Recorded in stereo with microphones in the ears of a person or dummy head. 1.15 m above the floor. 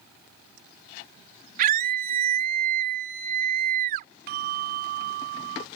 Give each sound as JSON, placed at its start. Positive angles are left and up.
{"t": 1.6, "sound": "a scream", "side_deg": -50}
{"t": 4.3, "sound": "a bell", "side_deg": -50}